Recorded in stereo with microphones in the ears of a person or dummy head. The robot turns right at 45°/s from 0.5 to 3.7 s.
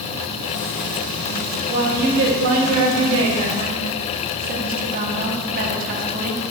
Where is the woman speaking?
140° right, 1.3 m; by 6.4 s 50° right, 1.3 m.